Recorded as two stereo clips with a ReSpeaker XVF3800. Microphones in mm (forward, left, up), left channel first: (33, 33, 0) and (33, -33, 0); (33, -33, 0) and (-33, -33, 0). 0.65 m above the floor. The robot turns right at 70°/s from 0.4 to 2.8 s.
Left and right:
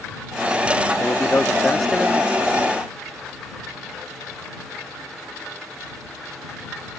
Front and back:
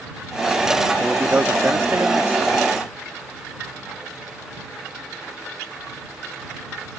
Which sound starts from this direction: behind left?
A man speaking, at 1.0 s.